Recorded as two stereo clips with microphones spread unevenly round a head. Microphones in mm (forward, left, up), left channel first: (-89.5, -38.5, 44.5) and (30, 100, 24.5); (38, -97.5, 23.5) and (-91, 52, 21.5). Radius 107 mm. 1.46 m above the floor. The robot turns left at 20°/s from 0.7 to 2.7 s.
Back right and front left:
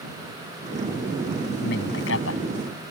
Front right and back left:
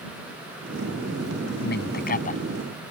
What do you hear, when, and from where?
1.6 s a man speaking: 85° right; by 2.4 s 100° right